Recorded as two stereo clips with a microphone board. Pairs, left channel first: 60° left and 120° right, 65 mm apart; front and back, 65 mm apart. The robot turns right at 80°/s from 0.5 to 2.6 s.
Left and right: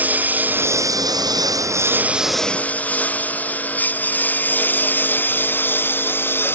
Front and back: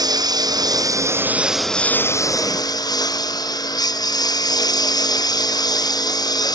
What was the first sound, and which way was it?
A lawn mower, 175° left.